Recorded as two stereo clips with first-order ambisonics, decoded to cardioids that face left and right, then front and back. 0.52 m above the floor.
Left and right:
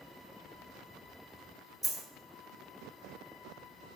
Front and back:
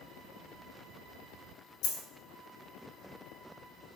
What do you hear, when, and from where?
1.8 s a dropped coin: 5° right, 0.7 m